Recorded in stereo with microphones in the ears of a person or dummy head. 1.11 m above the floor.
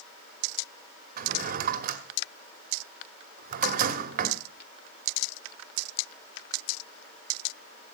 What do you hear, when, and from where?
1.2 s a drawer: 50° right (ahead or behind), 1.4 m